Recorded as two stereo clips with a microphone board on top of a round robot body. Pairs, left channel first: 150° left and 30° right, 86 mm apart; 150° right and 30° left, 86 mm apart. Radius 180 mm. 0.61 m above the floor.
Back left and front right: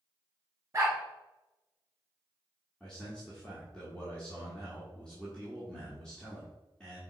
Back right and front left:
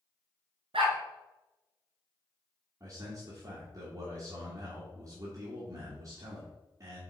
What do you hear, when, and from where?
0.7 s a dog barking: 30° left, 1.6 m
2.8 s a man speaking: 70° left, 1.9 m